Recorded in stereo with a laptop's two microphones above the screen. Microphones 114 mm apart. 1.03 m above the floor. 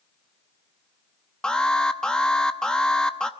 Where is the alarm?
5° left (ahead or behind), 0.9 m.